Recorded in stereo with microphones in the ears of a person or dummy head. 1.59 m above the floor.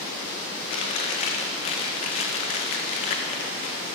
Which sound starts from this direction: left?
Chewing, at 0.7 s.